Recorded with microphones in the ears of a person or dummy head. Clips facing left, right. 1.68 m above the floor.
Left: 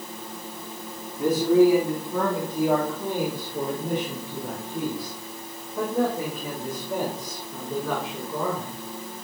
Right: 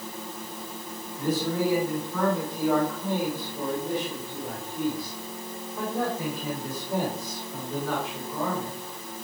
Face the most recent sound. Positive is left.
turn(degrees=75)  # may be behind; listen again after turning